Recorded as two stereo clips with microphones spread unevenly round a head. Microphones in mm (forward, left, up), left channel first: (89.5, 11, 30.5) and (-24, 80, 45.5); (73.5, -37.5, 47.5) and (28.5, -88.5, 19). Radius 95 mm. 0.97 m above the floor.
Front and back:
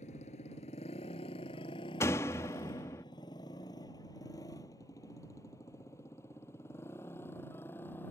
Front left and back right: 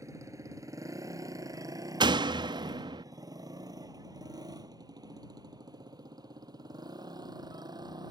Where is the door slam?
110° right.